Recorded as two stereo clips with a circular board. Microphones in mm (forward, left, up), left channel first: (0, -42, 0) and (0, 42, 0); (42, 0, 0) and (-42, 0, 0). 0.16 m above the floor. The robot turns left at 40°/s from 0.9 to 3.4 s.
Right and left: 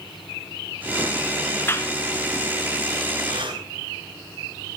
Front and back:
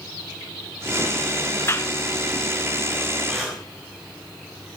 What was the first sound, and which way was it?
A clap, 45° right.